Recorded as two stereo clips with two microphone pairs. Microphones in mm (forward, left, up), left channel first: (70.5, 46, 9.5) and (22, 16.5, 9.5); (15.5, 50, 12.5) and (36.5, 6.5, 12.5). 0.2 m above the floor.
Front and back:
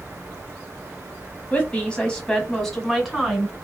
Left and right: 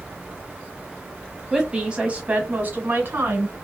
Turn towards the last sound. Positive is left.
turn(degrees=-65)